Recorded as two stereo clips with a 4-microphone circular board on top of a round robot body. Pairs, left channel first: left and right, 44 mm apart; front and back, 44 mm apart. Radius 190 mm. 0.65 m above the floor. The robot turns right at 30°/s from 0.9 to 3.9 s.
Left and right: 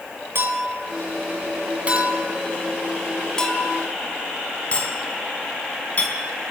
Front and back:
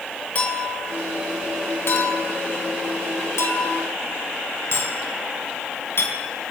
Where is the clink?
60° right, 4.5 m; by 6.2 s 30° left, 4.5 m.